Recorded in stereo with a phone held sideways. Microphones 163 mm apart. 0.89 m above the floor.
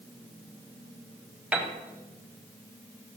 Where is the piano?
5° right (ahead or behind), 0.8 m.